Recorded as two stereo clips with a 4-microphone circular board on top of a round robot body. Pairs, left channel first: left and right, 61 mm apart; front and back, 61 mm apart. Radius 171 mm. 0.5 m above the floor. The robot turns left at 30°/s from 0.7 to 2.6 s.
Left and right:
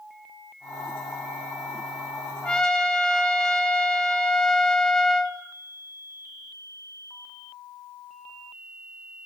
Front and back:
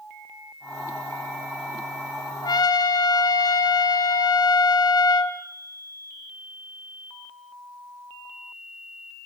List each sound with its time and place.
2.4 s a trumpet: 10° left, 2 m; by 5.4 s 5° left, 2 m